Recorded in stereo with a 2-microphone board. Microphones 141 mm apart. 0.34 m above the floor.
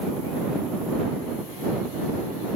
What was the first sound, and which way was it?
Only background noise.